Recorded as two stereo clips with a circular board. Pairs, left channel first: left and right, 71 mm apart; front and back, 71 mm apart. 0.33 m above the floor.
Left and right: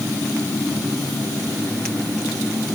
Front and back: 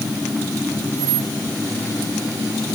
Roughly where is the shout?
I don't hear a shout.